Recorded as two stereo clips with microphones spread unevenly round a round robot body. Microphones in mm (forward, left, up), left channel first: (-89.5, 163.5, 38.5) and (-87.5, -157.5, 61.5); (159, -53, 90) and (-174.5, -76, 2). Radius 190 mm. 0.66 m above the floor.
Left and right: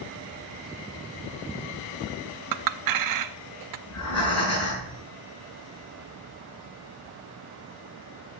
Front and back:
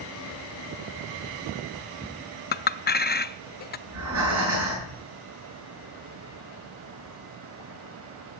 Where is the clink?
65° right, 0.5 m.